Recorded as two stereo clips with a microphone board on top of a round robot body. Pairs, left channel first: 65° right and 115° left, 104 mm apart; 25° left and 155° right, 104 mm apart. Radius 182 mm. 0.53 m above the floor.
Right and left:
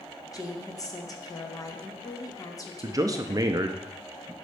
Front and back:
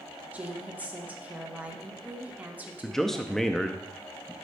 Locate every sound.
0.3 s a woman speaking: 95° right, 1.4 m
2.8 s a man speaking: 105° left, 0.6 m